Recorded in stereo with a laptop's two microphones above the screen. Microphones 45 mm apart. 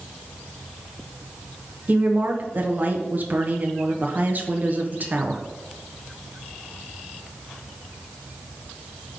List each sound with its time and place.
1.9 s a woman speaking: 45° right (ahead or behind), 1.1 m